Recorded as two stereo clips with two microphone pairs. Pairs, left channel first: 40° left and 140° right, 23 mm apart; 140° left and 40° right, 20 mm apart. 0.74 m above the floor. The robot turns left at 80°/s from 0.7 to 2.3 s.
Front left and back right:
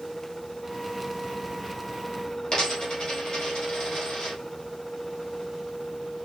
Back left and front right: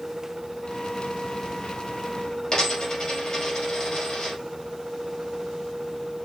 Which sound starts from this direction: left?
A dropped coin, at 2.5 s.